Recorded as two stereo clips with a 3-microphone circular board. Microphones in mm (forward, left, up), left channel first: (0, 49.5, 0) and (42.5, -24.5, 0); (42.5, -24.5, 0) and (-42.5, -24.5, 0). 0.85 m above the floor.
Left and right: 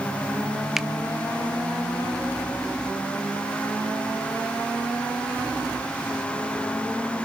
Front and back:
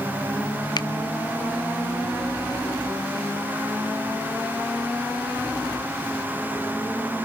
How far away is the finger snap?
About 0.5 m.